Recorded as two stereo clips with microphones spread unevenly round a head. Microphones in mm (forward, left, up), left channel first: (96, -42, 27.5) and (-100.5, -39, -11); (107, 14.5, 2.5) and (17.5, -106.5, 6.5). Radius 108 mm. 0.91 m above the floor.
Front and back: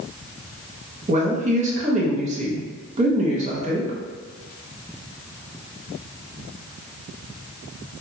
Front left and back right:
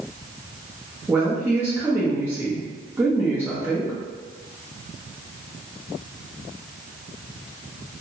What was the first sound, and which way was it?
A woman speaking, 160° left.